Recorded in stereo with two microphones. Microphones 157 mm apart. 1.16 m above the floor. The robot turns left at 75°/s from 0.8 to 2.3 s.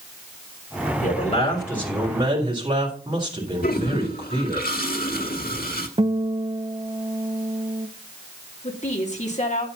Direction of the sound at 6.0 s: 40° right (ahead or behind).